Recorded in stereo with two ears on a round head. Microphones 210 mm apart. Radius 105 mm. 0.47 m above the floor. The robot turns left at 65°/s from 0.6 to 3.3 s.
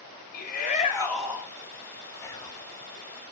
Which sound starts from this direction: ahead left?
A shout, at 0.3 s.